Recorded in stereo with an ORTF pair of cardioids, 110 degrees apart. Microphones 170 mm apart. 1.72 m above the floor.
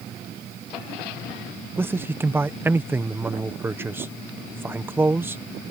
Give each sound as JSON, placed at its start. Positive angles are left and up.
{"t": 1.8, "sound": "a man speaking", "azimuth_deg": -15}